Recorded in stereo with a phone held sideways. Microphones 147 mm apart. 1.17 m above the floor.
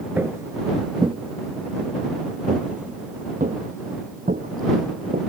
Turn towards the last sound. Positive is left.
turn(degrees=-70)  # may be behind; listen again after turning